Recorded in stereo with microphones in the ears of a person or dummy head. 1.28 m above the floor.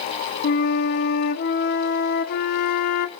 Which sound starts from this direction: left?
A flute, at 0.4 s.